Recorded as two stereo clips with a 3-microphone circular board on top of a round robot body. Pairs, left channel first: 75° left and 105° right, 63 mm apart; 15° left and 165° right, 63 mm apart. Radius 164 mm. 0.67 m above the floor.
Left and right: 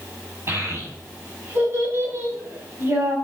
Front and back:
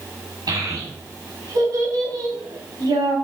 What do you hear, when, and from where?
0.5 s a child speaking: 155° right, 5 m